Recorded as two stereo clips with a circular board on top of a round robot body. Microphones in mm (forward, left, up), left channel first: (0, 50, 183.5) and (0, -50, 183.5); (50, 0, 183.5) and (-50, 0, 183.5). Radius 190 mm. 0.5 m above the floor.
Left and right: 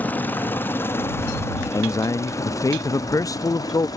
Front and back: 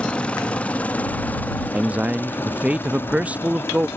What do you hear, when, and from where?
0.0 s a helicopter: 55° left
1.7 s a man speaking: 110° left